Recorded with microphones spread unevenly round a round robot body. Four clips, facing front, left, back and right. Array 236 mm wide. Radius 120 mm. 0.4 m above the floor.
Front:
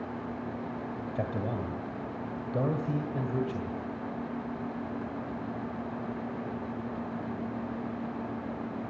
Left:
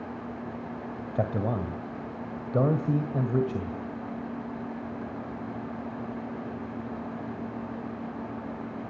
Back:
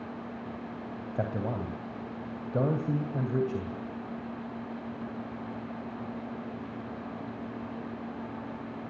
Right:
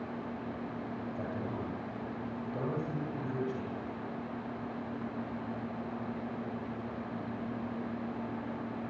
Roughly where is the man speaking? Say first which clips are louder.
Left 12 dB, back 2 dB; left.